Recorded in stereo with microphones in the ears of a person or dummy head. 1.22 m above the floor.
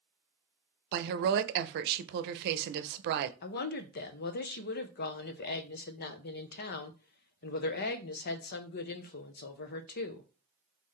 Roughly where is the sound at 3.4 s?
Left.